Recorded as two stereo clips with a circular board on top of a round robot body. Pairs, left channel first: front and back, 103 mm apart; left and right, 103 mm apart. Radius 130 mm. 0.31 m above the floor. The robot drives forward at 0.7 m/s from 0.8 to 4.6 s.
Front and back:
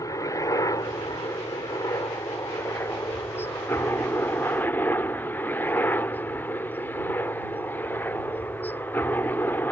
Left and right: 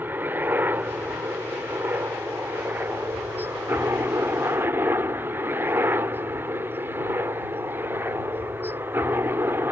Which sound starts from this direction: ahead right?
A helicopter, at 0.0 s.